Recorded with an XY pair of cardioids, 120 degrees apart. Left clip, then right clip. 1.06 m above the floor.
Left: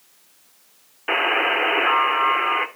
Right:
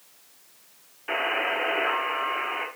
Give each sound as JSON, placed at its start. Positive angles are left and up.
{"t": 1.1, "sound": "a buzzer", "azimuth_deg": 55, "distance_m": 1.5}